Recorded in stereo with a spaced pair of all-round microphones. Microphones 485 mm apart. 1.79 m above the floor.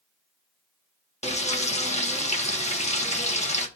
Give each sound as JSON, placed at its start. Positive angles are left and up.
{"t": 1.2, "sound": "frying", "side_deg": 15, "distance_m": 1.2}